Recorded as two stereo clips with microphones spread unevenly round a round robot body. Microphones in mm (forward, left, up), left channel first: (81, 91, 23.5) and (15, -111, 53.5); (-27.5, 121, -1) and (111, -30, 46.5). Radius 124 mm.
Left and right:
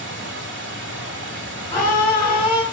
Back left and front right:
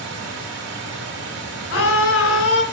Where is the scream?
145° left, 2.5 m.